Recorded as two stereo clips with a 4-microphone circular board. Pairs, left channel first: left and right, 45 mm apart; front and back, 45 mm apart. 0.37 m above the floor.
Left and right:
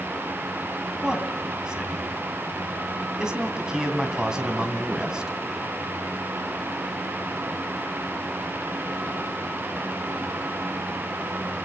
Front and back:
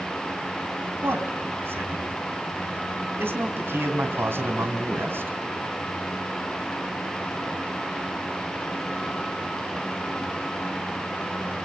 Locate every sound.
1.0 s a man speaking: 160° right, 3 m